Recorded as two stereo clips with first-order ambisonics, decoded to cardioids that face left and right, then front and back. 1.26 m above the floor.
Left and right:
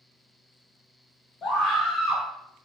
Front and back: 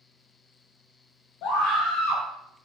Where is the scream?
30° left, 0.8 m.